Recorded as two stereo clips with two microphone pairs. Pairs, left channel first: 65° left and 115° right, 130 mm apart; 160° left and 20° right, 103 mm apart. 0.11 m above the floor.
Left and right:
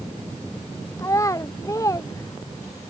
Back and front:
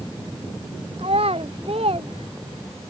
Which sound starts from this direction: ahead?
A child speaking, at 1.0 s.